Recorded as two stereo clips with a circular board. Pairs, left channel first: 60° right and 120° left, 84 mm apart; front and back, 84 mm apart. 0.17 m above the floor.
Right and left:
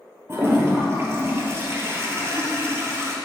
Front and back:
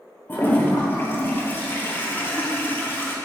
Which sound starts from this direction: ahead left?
A toilet flushing, at 0.3 s.